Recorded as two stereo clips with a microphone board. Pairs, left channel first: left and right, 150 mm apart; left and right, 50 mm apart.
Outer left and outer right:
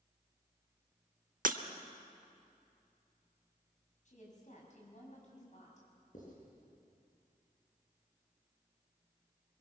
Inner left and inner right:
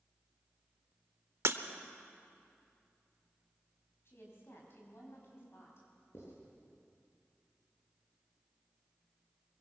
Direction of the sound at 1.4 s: 65° right (ahead or behind).